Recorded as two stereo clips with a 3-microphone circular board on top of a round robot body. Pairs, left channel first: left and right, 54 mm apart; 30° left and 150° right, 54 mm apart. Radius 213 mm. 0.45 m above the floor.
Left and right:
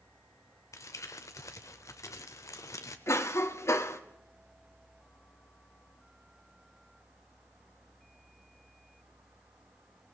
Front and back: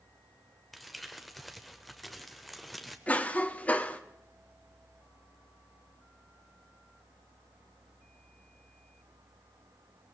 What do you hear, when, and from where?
0.7 s crumpling: 120° left, 0.6 m
3.1 s a cough: 85° left, 1.5 m